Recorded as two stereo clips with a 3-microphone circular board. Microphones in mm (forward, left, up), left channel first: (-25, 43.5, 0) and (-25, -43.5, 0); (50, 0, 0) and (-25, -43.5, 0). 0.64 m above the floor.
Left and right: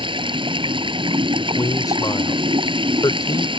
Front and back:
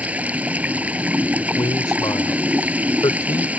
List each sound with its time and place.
0.0 s running water: 75° right
1.4 s a man speaking: 60° left